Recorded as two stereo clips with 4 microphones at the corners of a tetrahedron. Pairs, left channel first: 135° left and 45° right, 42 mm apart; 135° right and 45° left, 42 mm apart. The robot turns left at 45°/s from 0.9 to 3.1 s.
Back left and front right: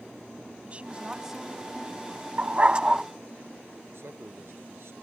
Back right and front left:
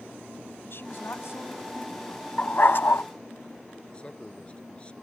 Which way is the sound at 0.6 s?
105° right.